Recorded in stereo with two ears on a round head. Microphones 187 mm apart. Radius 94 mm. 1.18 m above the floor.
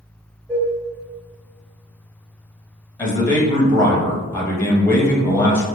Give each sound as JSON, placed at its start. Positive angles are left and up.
{"t": 0.5, "sound": "dishes clattering", "side_deg": -20, "distance_m": 1.9}
{"t": 3.0, "sound": "a man speaking", "side_deg": 10, "distance_m": 0.9}